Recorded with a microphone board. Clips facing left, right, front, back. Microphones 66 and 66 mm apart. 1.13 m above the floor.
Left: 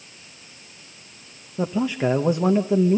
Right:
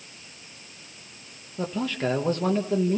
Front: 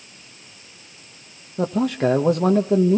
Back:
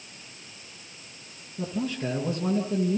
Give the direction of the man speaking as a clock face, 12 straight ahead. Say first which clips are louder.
Left 5 dB, front 10 dB; 11 o'clock.